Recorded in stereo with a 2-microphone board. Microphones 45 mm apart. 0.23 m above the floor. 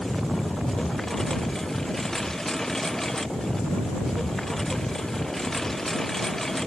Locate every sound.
0.0 s a lawn mower: 10° left (ahead or behind)